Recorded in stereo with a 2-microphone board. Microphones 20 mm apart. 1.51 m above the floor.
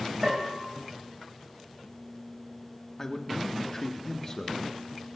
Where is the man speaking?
25° left (ahead or behind), 1.2 m.